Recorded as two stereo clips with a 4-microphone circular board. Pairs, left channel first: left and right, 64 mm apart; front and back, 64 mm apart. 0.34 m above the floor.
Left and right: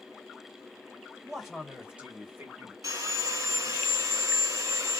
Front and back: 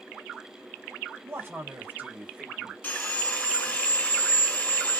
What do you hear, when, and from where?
1.2 s a man speaking: 175° left, 1.8 m; by 2.7 s 110° right, 1.8 m
2.8 s sawing: 60° right, 1.8 m